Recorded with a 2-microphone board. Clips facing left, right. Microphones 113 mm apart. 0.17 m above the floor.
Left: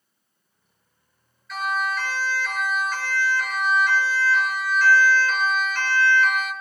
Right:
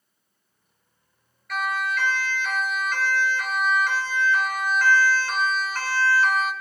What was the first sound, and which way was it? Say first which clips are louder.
A siren: left 1 dB; 65° right (ahead or behind).